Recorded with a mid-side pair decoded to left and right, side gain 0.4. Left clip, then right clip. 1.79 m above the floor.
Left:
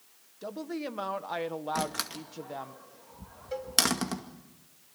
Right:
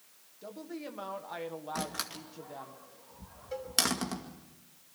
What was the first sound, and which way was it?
A woman speaking, 55° left.